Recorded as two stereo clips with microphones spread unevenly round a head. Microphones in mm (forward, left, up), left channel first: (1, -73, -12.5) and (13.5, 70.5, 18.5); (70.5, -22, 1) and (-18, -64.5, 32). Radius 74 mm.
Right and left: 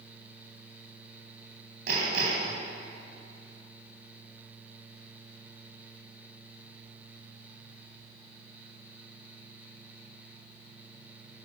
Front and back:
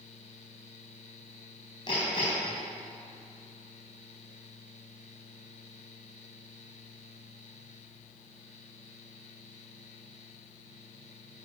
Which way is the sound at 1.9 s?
95° left.